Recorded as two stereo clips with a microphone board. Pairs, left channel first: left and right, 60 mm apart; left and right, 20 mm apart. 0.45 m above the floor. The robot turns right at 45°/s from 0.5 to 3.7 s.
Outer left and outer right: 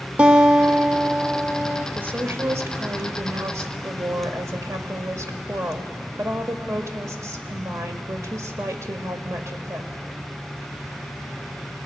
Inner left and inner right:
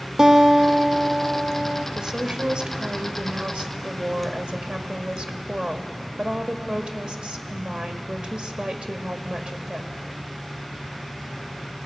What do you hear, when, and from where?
0.2 s a guitar: 20° right (ahead or behind), 0.9 m
1.9 s a woman speaking: 145° right, 1.7 m; by 9.9 s 65° right, 1.7 m